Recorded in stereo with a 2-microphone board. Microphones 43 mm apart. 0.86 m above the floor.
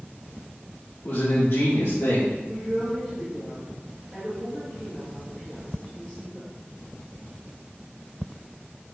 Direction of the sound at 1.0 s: 50° left (ahead or behind).